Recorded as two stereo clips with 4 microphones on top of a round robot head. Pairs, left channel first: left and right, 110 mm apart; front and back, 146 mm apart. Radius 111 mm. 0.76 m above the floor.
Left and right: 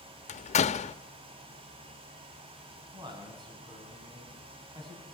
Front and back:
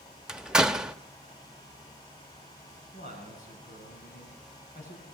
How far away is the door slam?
About 0.9 m.